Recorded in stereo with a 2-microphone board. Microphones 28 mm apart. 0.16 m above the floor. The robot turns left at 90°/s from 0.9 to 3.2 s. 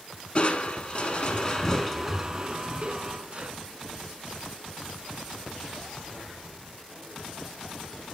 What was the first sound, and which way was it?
Crushing, 115° left.